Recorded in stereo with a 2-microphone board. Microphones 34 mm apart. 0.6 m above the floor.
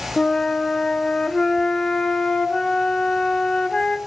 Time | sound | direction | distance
0.2 | a flute | 15° left (ahead or behind) | 0.9 m